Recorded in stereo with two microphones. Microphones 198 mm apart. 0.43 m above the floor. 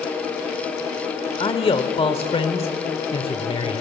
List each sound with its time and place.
1.4 s a man speaking: 30° left (ahead or behind), 1.1 m